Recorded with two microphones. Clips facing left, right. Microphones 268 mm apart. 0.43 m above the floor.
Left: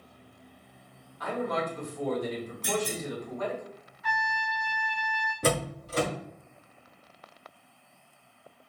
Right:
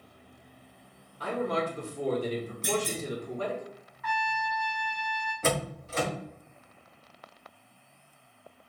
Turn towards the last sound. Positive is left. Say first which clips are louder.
# left 2 dB
turn(degrees=40)  # may be behind; listen again after turning